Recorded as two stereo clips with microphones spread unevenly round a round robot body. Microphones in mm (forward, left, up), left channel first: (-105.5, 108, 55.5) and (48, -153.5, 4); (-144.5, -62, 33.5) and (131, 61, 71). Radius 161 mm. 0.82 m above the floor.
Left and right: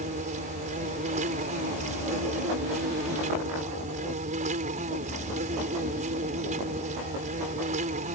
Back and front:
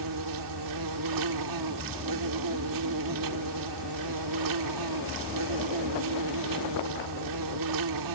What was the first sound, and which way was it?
An insect, 5° left.